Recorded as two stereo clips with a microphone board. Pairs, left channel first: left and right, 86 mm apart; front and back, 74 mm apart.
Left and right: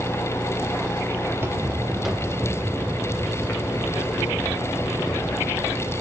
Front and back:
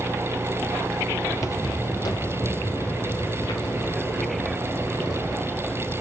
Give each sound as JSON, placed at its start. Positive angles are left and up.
{"t": 1.3, "sound": "footsteps", "azimuth_deg": -40, "distance_m": 1.8}